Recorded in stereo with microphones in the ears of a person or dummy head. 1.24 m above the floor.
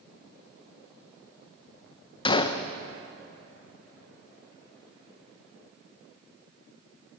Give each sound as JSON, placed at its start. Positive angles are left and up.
{"t": 2.2, "sound": "a gunshot", "side_deg": 30, "distance_m": 0.6}